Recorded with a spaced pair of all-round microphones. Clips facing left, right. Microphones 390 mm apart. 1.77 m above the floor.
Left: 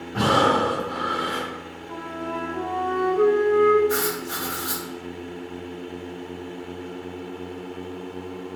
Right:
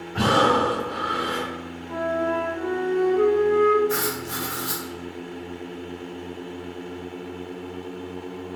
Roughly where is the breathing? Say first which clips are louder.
Even; left.